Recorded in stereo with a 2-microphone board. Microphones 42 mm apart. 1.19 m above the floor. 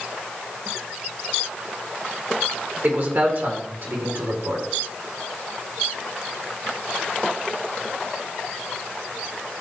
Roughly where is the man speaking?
Right.